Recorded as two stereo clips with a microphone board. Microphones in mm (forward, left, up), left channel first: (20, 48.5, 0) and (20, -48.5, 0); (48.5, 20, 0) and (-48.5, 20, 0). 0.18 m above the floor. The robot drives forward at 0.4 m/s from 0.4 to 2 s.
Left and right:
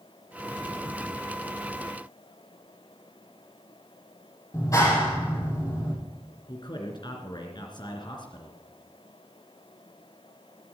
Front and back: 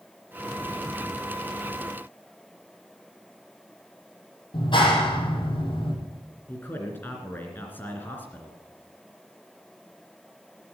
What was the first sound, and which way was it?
A clap, 35° left.